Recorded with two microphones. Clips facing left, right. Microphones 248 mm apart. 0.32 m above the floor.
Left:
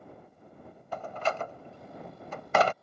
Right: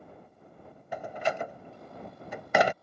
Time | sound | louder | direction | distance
0.9 | a door slam | right 1 dB | 15° right (ahead or behind) | ?